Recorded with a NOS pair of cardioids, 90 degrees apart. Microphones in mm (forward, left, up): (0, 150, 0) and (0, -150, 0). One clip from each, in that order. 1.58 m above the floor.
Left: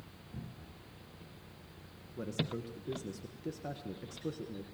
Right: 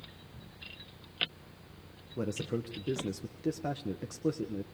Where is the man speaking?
40° right, 1.4 m.